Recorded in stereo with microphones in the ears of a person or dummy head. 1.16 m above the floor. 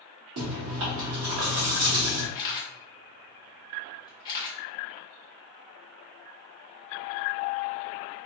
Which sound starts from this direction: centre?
A camera shutter, at 2.4 s.